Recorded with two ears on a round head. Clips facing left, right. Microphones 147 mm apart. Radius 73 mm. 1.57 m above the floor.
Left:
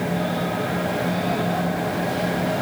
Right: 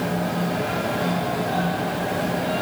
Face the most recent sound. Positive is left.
No sound to turn to.